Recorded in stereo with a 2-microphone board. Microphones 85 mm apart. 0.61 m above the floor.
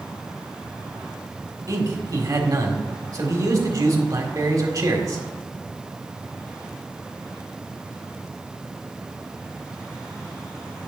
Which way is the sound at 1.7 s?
45° right (ahead or behind).